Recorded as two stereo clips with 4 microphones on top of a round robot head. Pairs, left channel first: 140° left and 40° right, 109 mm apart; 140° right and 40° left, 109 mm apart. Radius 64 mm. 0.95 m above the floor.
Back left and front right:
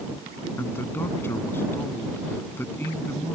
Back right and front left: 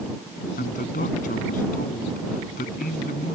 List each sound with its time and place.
0.6 s a man speaking: 150° right